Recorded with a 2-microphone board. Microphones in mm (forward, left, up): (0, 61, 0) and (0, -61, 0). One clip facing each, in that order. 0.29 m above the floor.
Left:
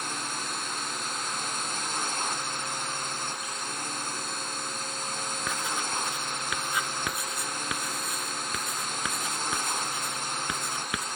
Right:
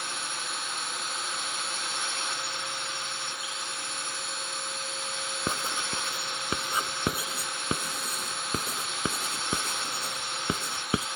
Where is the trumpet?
I don't hear a trumpet.